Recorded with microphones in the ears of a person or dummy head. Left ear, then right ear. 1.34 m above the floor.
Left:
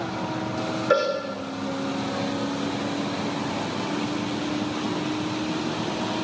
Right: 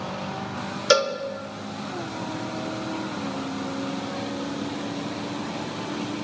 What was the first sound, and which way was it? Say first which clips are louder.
A cowbell: right 2 dB; 85° right.